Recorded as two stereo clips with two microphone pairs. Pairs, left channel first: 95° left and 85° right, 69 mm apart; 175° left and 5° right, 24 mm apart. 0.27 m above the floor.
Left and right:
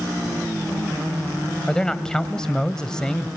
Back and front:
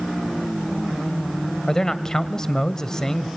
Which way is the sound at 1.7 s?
165° left.